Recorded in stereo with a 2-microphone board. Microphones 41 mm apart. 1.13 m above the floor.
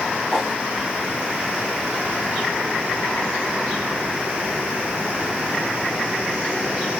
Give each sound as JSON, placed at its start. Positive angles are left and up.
{"t": 0.3, "sound": "a whoosh", "side_deg": 0, "distance_m": 2.5}